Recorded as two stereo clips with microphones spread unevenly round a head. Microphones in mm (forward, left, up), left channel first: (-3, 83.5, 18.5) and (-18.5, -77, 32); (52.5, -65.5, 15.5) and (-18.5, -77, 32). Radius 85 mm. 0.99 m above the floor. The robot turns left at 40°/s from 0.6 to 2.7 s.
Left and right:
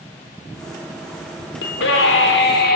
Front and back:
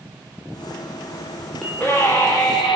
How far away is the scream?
About 2.5 m.